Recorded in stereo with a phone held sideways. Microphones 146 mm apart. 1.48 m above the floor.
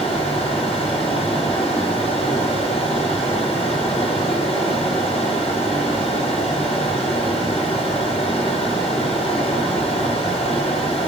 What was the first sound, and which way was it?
A fan, 45° left (ahead or behind).